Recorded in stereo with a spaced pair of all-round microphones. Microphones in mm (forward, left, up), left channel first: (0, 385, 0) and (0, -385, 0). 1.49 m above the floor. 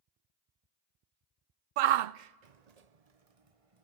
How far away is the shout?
About 0.5 m.